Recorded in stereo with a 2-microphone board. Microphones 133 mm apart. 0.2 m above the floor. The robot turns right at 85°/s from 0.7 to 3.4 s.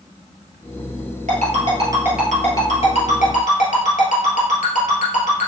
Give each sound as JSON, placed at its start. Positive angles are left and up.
{"t": 1.3, "sound": "a ringtone", "side_deg": -75, "distance_m": 1.8}